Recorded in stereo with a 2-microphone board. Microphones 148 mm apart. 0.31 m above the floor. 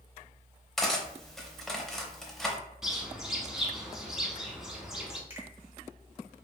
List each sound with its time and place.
0.8 s cutlery clinking: 5° left (ahead or behind), 0.6 m
2.8 s a bird: 5° right (ahead or behind), 0.6 m
5.3 s a finger snap: 15° right (ahead or behind), 1.0 m